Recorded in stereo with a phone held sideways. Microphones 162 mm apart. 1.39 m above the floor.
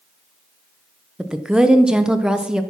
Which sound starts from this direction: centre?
A woman speaking, at 1.2 s.